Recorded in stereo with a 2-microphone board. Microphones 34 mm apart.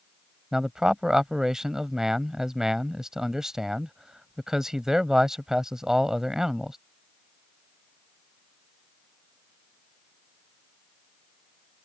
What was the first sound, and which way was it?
A man speaking, 15° right (ahead or behind).